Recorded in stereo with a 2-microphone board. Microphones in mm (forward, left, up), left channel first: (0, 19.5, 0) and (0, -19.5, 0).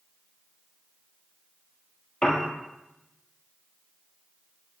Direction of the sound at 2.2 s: 20° left (ahead or behind).